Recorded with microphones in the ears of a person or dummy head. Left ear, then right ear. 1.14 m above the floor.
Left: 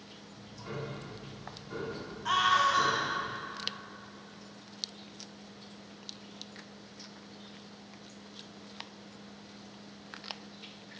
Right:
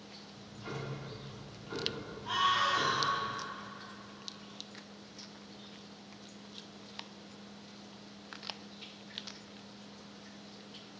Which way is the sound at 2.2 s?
50° left (ahead or behind).